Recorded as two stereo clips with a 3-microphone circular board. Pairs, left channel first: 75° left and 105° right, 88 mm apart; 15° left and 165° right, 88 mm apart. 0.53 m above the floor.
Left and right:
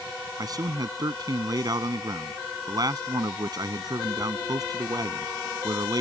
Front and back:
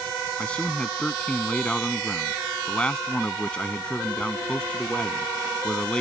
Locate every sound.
0.4 s a man speaking: 65° right